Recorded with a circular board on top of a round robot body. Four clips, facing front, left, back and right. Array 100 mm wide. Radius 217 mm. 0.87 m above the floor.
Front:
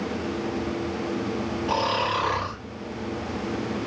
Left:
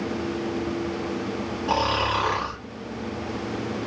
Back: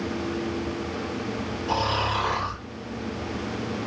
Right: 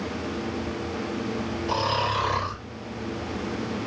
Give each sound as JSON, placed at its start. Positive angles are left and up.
{"t": 1.7, "sound": "snoring", "azimuth_deg": 80, "distance_m": 0.8}